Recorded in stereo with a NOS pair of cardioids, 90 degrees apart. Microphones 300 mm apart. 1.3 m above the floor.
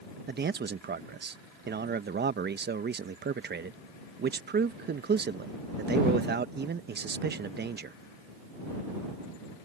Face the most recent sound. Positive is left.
turn(degrees=-35)